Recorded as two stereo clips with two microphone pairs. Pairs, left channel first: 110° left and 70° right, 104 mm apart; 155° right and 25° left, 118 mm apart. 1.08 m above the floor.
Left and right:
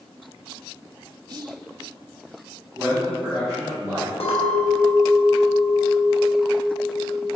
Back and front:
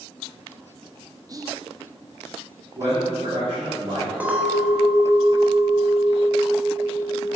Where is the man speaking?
10° left, 1.9 m.